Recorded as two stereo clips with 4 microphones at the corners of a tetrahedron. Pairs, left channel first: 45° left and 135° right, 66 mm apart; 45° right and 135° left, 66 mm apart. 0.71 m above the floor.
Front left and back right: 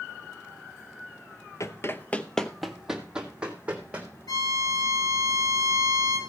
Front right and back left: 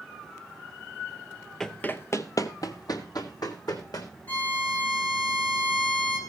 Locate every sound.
1.6 s running footsteps: 35° left, 1.0 m; by 4.1 s 65° right, 3 m
4.3 s a violin: 20° left, 4 m